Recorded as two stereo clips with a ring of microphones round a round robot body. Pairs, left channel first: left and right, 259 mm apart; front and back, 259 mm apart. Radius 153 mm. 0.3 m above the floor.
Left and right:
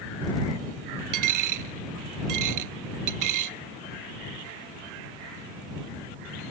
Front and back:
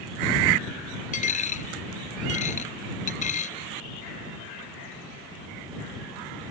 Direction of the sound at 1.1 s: 65° right.